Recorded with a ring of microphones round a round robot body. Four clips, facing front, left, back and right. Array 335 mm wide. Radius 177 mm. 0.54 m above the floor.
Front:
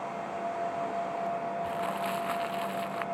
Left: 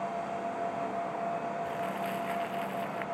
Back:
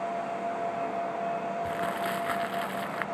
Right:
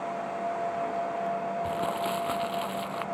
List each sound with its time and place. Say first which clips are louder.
1.6 s crumpling: right 4 dB, back 1 dB; 115° right